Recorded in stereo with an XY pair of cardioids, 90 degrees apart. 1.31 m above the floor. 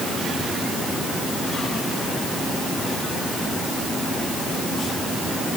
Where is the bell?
No bell in this recording.